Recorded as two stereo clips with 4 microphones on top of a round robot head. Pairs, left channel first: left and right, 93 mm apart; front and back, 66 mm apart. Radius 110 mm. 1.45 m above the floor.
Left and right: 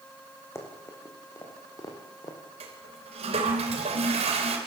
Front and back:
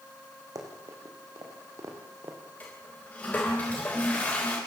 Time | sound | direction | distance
0.6 | running footsteps | 150° left | 4.5 m
2.6 | a toilet flushing | 70° right | 3.5 m